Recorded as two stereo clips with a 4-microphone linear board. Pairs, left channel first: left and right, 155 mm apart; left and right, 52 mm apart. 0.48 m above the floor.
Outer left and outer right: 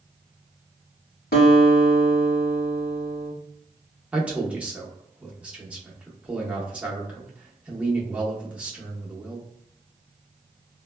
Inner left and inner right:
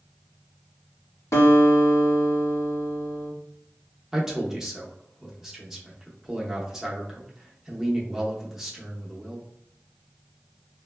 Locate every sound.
1.3 s a guitar: 80° left, 0.8 m
4.1 s a man speaking: 10° right (ahead or behind), 0.7 m